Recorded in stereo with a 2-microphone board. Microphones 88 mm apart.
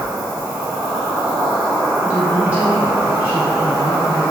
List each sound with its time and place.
0.0 s an insect: 20° right (ahead or behind), 1.1 m
2.0 s a woman speaking: 20° right (ahead or behind), 1.1 m